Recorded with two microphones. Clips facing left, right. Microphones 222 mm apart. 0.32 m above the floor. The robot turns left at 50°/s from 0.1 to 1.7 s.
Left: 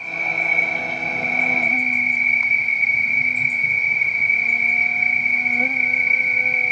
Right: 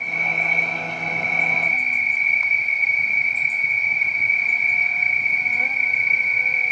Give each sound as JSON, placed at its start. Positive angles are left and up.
{"t": 0.0, "sound": "an insect", "azimuth_deg": -160}